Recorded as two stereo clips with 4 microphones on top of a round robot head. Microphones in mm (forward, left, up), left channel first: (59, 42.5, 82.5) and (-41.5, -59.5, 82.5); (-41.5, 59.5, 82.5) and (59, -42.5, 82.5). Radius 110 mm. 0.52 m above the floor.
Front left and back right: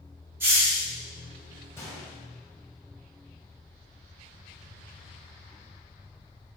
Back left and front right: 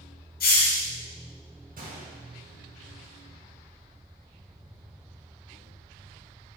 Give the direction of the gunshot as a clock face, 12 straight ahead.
1 o'clock.